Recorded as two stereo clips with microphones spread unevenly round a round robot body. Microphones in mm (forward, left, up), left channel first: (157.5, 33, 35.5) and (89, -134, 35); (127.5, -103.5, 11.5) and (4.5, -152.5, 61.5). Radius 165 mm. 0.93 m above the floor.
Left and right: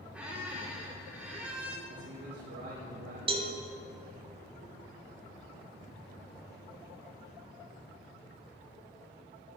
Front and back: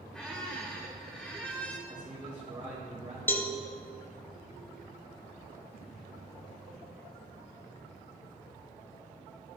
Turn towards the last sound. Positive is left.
turn(degrees=-75)